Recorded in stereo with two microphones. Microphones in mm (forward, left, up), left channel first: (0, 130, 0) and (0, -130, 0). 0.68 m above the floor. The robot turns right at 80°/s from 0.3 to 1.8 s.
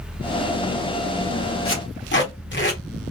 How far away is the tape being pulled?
About 1.8 m.